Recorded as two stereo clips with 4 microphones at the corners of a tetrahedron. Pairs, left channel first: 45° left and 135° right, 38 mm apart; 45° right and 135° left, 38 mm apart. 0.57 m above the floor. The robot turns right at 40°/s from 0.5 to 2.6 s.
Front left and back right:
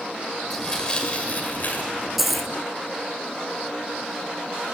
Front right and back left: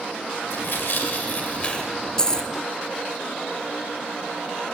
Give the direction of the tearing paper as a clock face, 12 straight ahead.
1 o'clock.